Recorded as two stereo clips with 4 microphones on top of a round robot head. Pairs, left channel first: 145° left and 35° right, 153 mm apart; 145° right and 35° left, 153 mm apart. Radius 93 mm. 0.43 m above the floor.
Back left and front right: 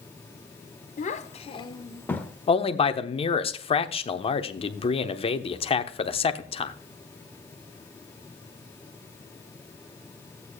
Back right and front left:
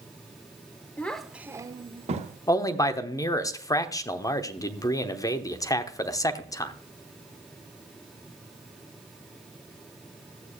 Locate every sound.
1.0 s a child speaking: 140° left, 1.1 m; by 2.4 s 60° left, 1.2 m
2.5 s a man speaking: 160° left, 1.0 m